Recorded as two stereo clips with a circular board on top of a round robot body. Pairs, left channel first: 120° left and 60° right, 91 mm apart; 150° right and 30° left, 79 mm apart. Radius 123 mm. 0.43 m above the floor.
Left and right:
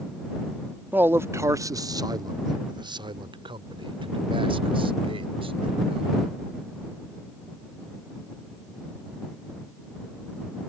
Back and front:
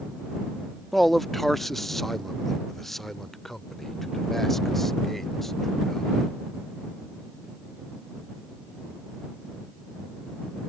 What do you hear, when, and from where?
0.9 s a man speaking: 65° right